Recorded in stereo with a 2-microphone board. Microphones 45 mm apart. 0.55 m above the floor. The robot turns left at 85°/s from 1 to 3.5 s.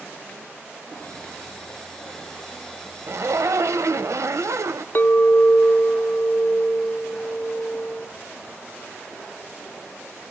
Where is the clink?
45° left (ahead or behind), 0.9 m.